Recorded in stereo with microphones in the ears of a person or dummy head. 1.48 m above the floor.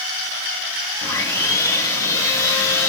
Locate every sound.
1.0 s sawing: 15° left (ahead or behind), 2 m